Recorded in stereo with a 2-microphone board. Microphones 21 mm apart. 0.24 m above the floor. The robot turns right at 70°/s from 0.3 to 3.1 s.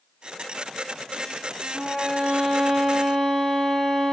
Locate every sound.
1.7 s a violin: 90° right, 1.9 m; by 4.1 s 5° left, 1.9 m